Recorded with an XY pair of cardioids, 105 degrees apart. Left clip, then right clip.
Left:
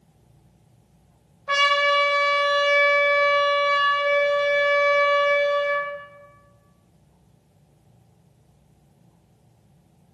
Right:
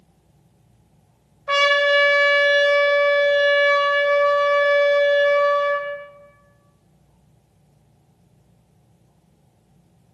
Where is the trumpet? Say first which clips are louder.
Right 2 dB; 35° right, 0.8 m.